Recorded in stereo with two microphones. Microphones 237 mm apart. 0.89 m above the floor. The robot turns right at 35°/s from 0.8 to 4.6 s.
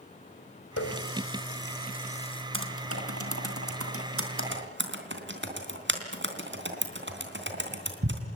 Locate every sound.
0.8 s a running tap: 75° left (ahead or behind), 3 m; by 2.4 s 20° left (ahead or behind), 3 m
2.5 s typing on a keyboard: 55° right (ahead or behind), 3 m; by 8.2 s 50° right (ahead or behind), 3 m